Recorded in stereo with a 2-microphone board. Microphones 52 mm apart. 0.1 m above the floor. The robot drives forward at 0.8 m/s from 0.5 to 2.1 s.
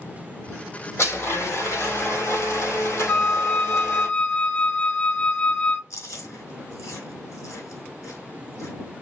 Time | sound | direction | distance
1.0 | a blender | 60° left (ahead or behind) | 4 m
3.1 | a flute | 25° left (ahead or behind) | 0.6 m
5.9 | chewing | 75° left (ahead or behind) | 4 m